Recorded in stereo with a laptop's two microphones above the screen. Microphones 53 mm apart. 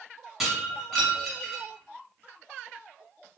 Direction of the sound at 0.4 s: 5° right (ahead or behind).